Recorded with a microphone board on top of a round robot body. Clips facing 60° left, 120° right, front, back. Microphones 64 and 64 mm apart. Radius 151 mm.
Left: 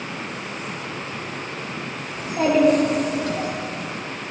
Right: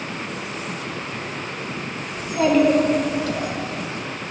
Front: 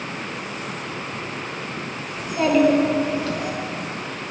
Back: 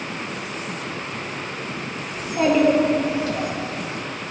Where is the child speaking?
115° left, 1.8 m.